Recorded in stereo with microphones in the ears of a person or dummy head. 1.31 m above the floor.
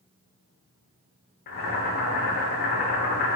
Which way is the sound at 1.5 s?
45° left (ahead or behind).